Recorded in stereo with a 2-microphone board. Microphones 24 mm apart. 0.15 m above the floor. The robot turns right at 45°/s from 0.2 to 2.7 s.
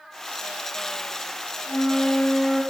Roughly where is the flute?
Behind left.